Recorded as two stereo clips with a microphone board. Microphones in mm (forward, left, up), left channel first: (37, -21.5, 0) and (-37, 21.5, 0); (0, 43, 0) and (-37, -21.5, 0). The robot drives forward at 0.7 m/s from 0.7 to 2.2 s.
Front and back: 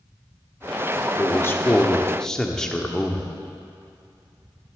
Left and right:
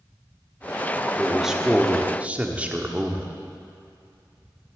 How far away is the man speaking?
About 1.3 m.